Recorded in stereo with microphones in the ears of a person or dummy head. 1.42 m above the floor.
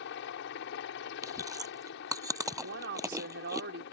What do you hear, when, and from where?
0.0 s a helicopter: 65° left (ahead or behind)
1.2 s chewing: 20° right (ahead or behind)
2.6 s a woman speaking: 70° right (ahead or behind)